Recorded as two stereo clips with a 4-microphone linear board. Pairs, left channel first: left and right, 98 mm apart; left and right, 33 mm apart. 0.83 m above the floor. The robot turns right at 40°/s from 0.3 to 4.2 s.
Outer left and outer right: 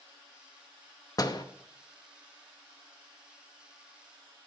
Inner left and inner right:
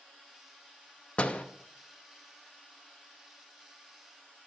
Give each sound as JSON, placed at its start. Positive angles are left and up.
{"t": 1.2, "sound": "a door slam", "side_deg": 35, "distance_m": 0.8}